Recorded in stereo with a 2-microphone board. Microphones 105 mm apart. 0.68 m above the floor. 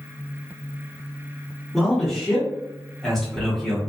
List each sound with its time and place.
1.7 s a man speaking: centre (ahead or behind), 0.9 m